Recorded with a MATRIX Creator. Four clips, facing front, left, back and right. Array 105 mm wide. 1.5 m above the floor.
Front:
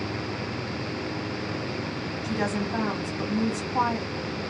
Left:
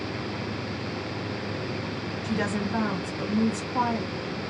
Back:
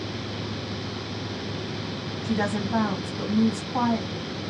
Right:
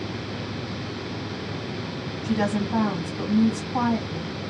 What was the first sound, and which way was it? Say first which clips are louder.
A woman speaking: right 4 dB, back 2 dB; 125° right.